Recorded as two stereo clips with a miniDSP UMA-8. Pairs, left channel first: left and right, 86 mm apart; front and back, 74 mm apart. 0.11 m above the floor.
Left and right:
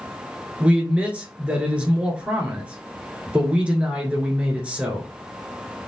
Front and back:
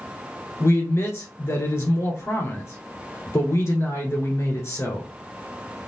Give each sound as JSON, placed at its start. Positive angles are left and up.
{"t": 0.6, "sound": "a man speaking", "azimuth_deg": -25, "distance_m": 1.4}